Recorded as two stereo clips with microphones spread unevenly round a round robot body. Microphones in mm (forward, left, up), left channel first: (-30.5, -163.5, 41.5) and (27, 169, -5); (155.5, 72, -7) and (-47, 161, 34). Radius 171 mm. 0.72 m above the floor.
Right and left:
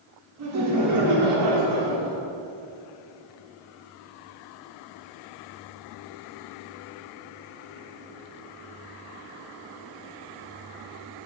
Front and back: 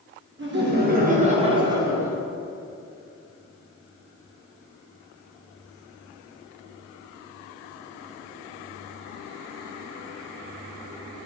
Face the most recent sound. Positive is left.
turn(degrees=70)